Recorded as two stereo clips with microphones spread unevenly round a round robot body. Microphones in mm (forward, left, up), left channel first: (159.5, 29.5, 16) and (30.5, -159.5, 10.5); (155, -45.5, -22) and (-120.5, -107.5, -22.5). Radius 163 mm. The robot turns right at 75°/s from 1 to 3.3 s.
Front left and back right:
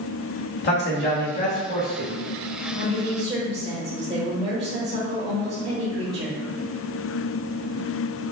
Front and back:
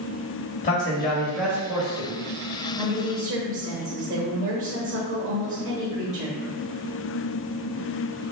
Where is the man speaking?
70° left, 1.1 m; by 2.1 s 155° left, 1.1 m.